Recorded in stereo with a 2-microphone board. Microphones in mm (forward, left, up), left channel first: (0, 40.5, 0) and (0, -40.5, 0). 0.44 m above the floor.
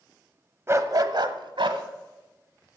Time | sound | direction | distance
0.7 | a dog barking | 35° right (ahead or behind) | 0.8 m